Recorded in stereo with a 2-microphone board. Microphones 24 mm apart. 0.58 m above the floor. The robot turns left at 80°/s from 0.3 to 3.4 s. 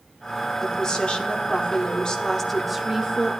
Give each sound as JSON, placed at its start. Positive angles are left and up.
{"t": 0.6, "sound": "a woman speaking", "azimuth_deg": 160, "distance_m": 1.3}